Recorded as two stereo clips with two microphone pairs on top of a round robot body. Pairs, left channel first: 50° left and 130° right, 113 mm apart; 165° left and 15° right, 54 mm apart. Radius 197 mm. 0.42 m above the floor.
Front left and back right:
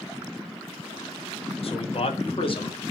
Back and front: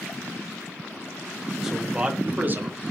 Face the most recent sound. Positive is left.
turn(degrees=15)